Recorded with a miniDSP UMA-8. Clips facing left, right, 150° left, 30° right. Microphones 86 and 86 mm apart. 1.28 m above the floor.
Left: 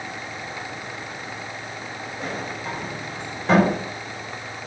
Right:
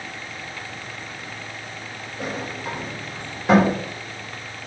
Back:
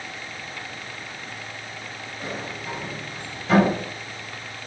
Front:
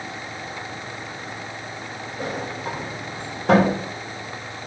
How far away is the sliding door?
About 4 m.